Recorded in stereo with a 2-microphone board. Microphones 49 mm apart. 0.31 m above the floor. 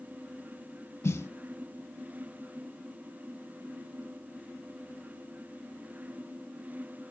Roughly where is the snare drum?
Left.